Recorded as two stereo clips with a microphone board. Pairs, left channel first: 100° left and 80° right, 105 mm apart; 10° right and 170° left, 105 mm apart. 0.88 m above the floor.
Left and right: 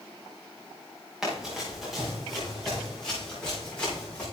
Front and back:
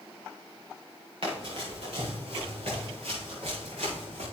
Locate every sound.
1.2 s running footsteps: 165° right, 5.5 m; by 4.2 s straight behind, 7 m